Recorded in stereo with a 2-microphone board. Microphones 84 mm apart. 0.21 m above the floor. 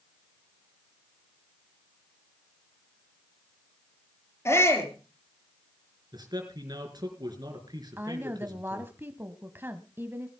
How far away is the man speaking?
About 3.5 m.